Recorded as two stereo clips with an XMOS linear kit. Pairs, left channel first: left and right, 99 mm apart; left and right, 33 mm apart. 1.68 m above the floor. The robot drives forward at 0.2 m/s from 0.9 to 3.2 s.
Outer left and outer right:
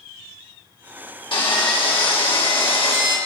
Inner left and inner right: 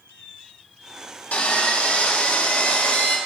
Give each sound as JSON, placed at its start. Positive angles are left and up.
{"t": 1.3, "sound": "sawing", "side_deg": 55, "distance_m": 1.9}